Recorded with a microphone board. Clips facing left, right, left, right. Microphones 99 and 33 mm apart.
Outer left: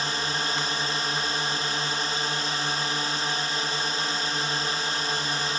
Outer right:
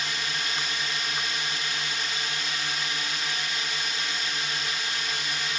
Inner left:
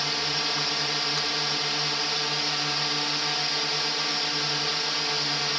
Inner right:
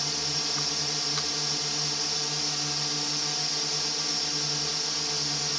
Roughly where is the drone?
Left.